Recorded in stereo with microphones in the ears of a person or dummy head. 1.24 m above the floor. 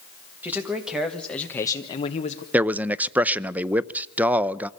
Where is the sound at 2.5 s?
10° right (ahead or behind), 0.5 m.